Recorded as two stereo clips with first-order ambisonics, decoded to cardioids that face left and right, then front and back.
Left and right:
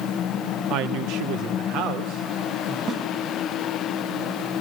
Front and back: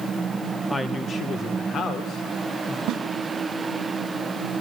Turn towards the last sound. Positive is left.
turn(degrees=-140)